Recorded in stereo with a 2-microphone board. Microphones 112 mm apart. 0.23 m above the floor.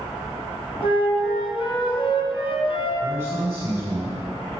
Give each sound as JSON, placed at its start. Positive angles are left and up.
{"t": 0.8, "sound": "a flute", "side_deg": 50, "distance_m": 2.0}
{"t": 3.0, "sound": "a man speaking", "side_deg": -20, "distance_m": 1.7}